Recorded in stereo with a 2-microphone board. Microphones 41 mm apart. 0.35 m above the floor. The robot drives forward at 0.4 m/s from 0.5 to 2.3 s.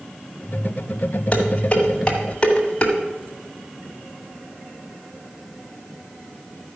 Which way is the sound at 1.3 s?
30° left (ahead or behind).